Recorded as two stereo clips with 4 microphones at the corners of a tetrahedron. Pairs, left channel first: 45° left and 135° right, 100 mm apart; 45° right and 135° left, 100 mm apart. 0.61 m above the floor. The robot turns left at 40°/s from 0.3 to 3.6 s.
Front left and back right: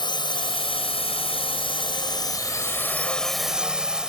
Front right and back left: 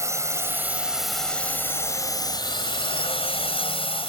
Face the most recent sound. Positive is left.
turn(degrees=-55)